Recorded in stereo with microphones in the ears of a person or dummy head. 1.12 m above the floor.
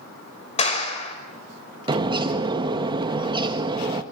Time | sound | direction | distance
0.6 | a clap | 35° left (ahead or behind) | 5 m
1.9 | a bird | 25° right (ahead or behind) | 1.5 m